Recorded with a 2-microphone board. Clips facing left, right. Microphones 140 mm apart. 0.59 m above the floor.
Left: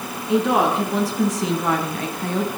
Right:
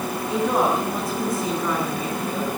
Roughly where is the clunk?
No clunk in this recording.